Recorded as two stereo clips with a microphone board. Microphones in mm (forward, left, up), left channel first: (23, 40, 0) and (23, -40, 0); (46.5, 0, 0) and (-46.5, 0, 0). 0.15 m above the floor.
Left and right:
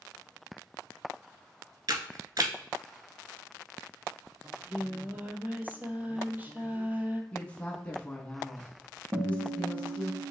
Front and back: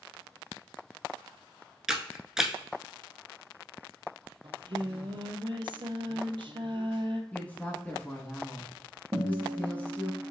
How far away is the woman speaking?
About 1.1 m.